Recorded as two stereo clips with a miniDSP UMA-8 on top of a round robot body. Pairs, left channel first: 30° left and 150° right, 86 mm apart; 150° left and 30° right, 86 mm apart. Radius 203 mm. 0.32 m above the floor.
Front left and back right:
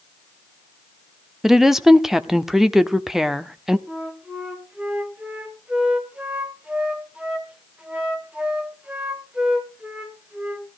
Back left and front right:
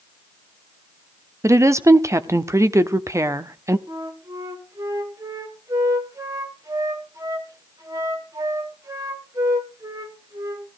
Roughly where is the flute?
Right.